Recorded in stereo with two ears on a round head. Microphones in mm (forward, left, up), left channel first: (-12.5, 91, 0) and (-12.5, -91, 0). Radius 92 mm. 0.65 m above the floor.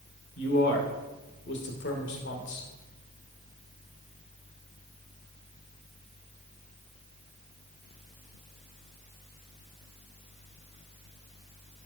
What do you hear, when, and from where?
0.4 s a man speaking: 55° left (ahead or behind), 2.0 m